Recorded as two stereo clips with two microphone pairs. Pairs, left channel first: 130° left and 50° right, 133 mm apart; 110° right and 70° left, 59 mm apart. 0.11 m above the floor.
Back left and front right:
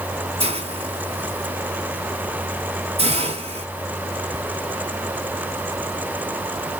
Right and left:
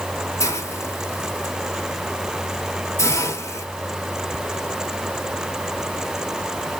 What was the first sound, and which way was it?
A hiss, 85° right.